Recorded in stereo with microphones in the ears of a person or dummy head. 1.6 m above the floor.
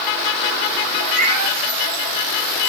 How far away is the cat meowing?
About 6.5 m.